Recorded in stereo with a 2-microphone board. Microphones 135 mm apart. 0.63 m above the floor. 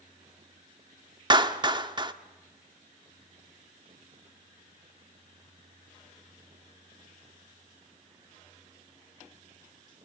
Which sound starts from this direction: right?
A clap, at 1.3 s.